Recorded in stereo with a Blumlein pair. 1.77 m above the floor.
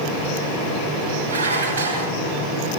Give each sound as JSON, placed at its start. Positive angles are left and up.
{"t": 1.3, "sound": "dishes clattering", "azimuth_deg": -65, "distance_m": 8.5}